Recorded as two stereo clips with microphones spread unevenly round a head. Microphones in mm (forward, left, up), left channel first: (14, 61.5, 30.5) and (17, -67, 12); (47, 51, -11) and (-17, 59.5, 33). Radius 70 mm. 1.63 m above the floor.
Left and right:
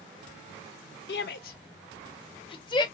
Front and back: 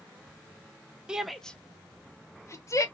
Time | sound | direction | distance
1.1 | a shout | 95° left | 0.5 m